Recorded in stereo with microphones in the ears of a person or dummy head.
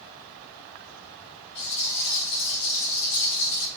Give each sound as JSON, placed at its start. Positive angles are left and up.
{"t": 1.6, "sound": "a rattle", "side_deg": 55, "distance_m": 4.5}